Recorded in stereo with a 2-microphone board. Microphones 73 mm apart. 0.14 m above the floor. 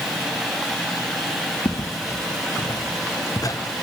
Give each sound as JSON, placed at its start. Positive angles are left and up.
{"t": 1.6, "sound": "footsteps", "side_deg": 75, "distance_m": 2.5}